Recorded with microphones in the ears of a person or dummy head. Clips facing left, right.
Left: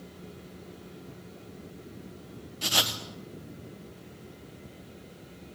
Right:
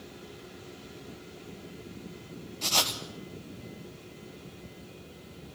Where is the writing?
15° left (ahead or behind), 1.1 m.